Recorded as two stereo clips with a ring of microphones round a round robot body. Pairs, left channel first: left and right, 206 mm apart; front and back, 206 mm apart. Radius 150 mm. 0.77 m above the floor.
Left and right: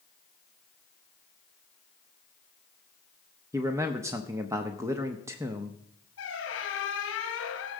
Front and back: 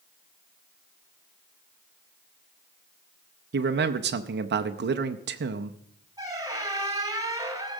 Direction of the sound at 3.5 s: 165° right.